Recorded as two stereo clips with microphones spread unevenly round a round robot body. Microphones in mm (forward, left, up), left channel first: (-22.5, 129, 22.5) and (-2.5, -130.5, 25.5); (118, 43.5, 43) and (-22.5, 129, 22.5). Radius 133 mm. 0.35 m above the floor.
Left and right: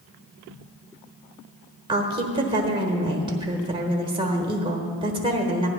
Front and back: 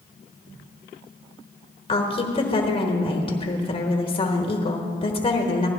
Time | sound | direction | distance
1.9 | a woman speaking | 35° right | 1.1 m